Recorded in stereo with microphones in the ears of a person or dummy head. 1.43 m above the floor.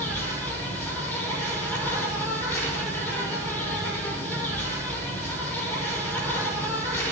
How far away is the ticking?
No ticking in this recording.